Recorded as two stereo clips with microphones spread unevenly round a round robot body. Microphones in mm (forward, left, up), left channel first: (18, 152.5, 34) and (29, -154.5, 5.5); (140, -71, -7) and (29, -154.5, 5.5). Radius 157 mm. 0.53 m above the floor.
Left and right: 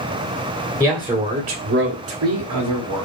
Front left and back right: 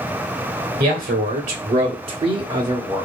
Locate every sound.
0.8 s a man speaking: straight behind, 1.6 m; by 3.1 s 75° right, 2 m